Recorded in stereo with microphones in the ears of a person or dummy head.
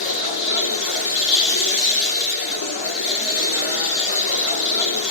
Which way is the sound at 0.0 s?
70° left (ahead or behind).